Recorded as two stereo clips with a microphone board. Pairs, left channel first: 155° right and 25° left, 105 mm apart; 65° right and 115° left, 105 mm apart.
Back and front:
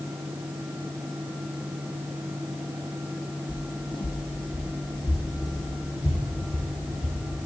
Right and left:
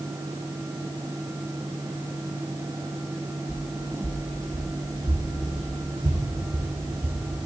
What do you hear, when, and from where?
3.5 s footsteps: 170° right, 2 m; by 7.2 s 140° left, 4 m